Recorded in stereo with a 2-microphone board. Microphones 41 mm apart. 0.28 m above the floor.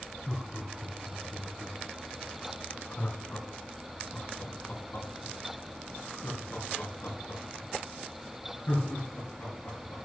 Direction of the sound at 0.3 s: 10° left (ahead or behind).